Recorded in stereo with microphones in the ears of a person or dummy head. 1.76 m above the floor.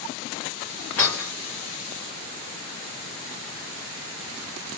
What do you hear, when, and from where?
1.0 s breaking glass: 10° left (ahead or behind), 2.5 m